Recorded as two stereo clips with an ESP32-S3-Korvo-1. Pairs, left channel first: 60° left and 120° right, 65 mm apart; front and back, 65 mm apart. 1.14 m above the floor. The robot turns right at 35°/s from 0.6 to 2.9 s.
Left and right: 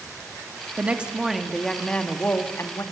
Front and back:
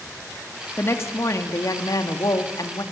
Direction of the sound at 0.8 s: 55° right.